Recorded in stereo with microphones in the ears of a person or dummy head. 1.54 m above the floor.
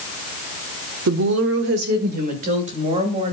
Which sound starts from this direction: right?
A woman speaking, at 1.1 s.